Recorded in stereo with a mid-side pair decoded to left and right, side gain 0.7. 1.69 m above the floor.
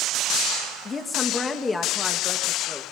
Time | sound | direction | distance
0.8 | a woman speaking | 25° left | 3 m